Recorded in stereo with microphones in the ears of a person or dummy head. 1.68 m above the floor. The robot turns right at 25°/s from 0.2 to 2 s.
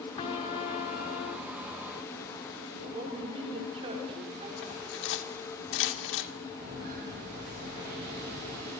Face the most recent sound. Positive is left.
turn(degrees=-60)  # may be behind; listen again after turning